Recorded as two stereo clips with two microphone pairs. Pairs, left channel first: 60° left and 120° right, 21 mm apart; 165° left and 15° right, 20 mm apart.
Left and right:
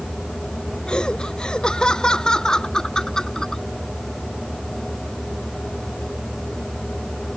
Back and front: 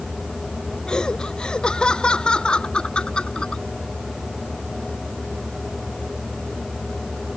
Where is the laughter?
115° left; by 3.6 s 130° left.